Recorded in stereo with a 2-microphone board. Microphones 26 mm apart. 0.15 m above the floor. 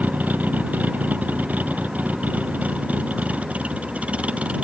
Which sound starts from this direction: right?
A vehicle, at 0.0 s.